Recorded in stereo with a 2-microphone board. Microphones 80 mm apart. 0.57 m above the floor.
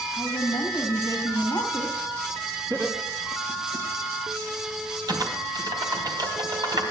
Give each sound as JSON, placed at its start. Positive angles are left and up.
{"t": 0.1, "sound": "a woman speaking", "side_deg": 60, "distance_m": 2.5}
{"t": 2.7, "sound": "laughter", "side_deg": -50, "distance_m": 4.5}
{"t": 5.1, "sound": "typing on a keyboard", "side_deg": -60, "distance_m": 3.5}